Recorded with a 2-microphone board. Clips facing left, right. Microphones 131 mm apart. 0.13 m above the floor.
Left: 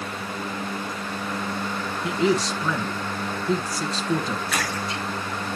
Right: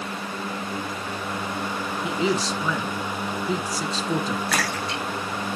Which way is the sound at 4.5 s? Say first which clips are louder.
Right 1 dB; 75° right (ahead or behind).